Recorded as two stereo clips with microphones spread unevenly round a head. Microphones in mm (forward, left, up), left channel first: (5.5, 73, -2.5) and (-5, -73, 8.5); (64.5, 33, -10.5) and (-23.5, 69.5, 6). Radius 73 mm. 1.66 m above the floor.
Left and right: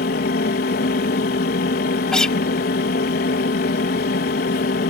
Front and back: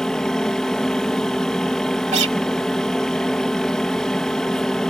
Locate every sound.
0.0 s a fan: 65° left
2.1 s a guitar: 175° left